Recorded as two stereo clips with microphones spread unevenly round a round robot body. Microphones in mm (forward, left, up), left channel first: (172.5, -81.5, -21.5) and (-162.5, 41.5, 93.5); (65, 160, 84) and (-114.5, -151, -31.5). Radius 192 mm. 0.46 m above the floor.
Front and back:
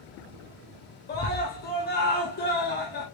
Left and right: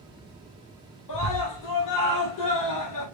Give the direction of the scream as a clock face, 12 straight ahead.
11 o'clock.